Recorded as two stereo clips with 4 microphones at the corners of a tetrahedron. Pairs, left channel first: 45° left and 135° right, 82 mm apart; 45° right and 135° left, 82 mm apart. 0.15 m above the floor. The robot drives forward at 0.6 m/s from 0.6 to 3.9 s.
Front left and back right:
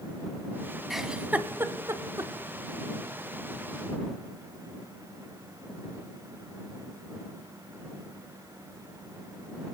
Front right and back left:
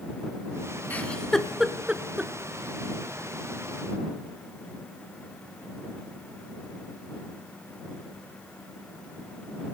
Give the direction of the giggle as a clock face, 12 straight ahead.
2 o'clock.